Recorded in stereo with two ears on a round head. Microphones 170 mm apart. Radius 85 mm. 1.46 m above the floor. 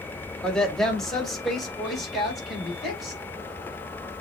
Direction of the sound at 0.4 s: 5° left (ahead or behind).